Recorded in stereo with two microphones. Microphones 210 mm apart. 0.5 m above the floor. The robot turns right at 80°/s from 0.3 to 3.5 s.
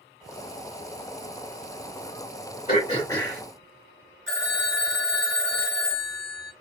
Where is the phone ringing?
65° right (ahead or behind), 1.5 m.